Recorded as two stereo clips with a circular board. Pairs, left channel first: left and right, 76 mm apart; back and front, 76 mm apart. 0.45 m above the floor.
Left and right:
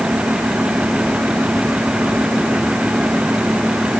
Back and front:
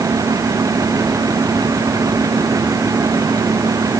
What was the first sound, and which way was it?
Only background noise.